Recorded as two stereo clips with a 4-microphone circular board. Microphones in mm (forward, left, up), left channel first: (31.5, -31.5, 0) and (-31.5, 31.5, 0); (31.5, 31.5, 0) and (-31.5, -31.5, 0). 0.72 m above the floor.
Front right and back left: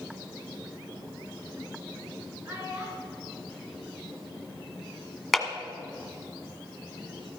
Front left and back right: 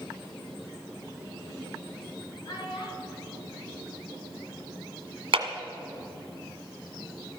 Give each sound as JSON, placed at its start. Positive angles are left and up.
{"t": 2.5, "sound": "a child speaking", "azimuth_deg": 80, "distance_m": 6.5}
{"t": 5.3, "sound": "a clap", "azimuth_deg": -135, "distance_m": 1.7}